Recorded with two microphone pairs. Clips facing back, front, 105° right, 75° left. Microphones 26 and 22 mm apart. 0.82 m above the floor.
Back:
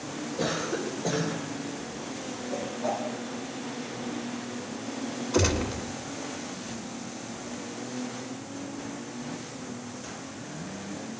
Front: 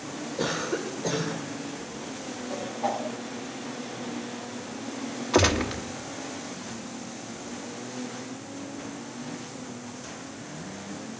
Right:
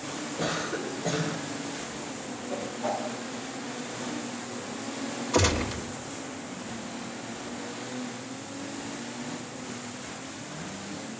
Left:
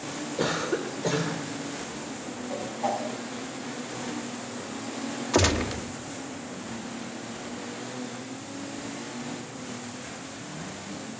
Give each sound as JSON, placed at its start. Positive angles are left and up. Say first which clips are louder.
{"t": 0.4, "sound": "a cough", "louder": "front 1 dB, left 4 dB", "azimuth_deg": 65, "distance_m": 3.0}
{"t": 2.5, "sound": "a whoosh", "louder": "front 1 dB, left 2 dB", "azimuth_deg": 35, "distance_m": 5.5}
{"t": 5.3, "sound": "a gunshot", "louder": "front 4 dB, left 1 dB", "azimuth_deg": 10, "distance_m": 1.3}